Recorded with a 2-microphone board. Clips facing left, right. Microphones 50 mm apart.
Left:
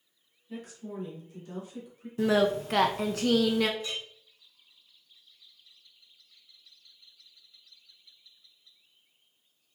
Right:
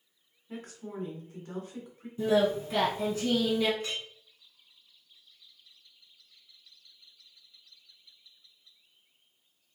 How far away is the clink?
About 2 m.